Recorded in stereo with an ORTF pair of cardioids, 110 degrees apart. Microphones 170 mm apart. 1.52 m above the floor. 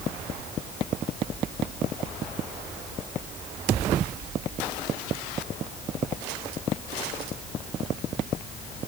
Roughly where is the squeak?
I don't hear a squeak.